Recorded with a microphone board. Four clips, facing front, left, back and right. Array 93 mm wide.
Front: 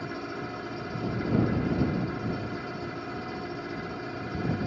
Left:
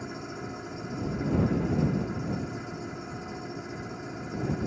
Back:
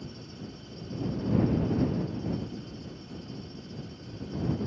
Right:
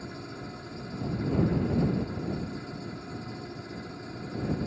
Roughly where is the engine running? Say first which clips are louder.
Left 3 dB, front 8 dB; ahead.